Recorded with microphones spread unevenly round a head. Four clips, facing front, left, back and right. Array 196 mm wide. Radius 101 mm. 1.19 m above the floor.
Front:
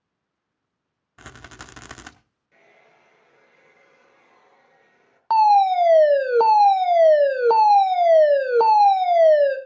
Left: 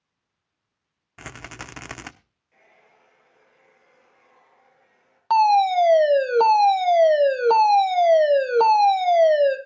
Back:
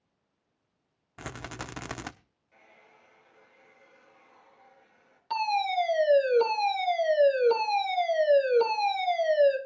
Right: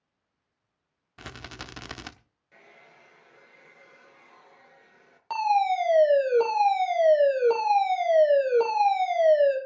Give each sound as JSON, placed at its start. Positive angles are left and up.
{"t": 1.2, "sound": "a rattle", "azimuth_deg": 165, "distance_m": 0.8}
{"t": 2.5, "sound": "a hair dryer", "azimuth_deg": -60, "distance_m": 5.0}
{"t": 5.3, "sound": "a fire alarm", "azimuth_deg": 30, "distance_m": 2.5}